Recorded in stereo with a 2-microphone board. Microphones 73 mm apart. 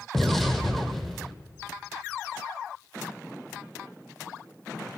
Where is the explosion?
Centre (ahead or behind), 1.1 m.